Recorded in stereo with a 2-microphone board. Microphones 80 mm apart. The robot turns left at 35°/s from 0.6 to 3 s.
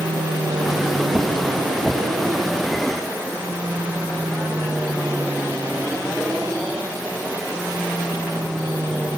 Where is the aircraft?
75° right; by 9.2 s 160° right.